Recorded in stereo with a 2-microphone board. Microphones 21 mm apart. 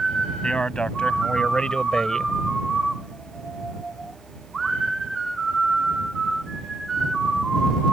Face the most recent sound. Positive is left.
turn(degrees=25)  # may be behind; listen again after turning